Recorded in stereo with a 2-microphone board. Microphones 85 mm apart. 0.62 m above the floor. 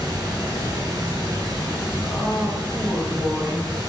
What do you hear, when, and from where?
0.0 s running water: 50° right (ahead or behind), 1.2 m
2.0 s a woman speaking: 25° right (ahead or behind), 1.2 m